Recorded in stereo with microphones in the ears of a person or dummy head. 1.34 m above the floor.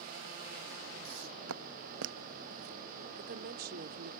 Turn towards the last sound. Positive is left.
turn(degrees=-50)  # may be behind; listen again after turning